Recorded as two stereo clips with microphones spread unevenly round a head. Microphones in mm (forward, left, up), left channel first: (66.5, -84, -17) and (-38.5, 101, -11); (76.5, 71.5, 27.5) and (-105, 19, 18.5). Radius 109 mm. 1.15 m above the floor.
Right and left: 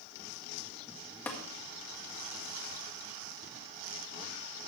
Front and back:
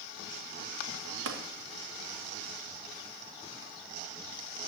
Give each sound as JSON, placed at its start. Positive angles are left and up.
{"t": 1.3, "sound": "tapping", "azimuth_deg": -145, "distance_m": 1.5}